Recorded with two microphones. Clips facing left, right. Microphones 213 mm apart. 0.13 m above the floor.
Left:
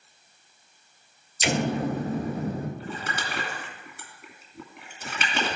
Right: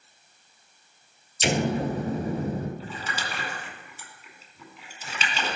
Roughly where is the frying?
No frying in this recording.